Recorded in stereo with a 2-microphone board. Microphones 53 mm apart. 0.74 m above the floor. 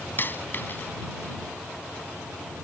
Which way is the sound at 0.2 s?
40° left (ahead or behind).